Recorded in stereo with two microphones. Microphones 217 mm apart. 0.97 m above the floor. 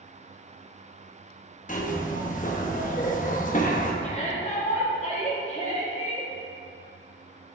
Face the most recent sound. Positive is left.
turn(degrees=30)  # may be behind; listen again after turning